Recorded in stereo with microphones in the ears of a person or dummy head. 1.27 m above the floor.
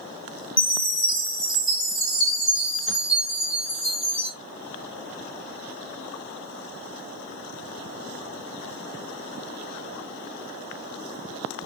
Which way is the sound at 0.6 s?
20° left (ahead or behind).